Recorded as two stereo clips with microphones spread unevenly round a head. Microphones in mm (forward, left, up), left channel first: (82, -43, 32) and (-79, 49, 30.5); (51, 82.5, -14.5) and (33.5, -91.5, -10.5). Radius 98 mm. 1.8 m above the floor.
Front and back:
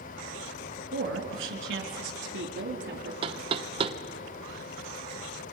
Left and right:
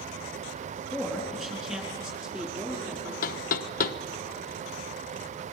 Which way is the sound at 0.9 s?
175° left.